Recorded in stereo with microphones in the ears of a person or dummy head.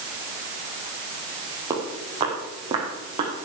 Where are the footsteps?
25° right (ahead or behind), 2.5 m; by 3.3 s 40° right (ahead or behind), 4.5 m.